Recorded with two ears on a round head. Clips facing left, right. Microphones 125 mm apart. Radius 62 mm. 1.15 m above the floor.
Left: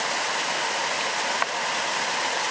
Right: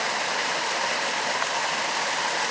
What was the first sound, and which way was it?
Only background noise.